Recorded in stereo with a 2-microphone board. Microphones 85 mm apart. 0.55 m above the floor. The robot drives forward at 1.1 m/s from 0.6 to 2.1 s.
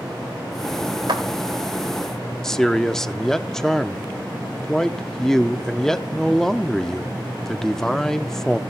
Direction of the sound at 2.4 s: 5° left (ahead or behind).